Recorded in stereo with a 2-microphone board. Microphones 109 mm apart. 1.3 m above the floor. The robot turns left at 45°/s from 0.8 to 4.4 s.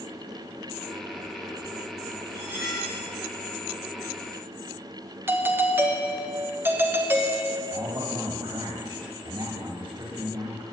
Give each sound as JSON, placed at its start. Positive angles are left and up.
{"t": 2.3, "sound": "cutlery clinking", "azimuth_deg": -150, "distance_m": 1.7}
{"t": 5.3, "sound": "a doorbell", "side_deg": -20, "distance_m": 0.6}
{"t": 7.7, "sound": "a man speaking", "side_deg": -40, "distance_m": 1.6}